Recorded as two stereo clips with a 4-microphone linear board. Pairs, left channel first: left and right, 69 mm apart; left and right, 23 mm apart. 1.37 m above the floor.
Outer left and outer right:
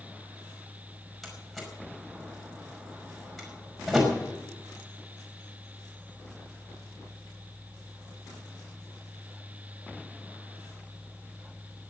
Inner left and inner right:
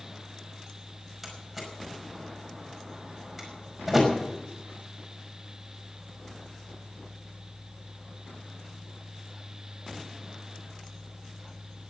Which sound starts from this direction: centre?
A door slam, at 1.2 s.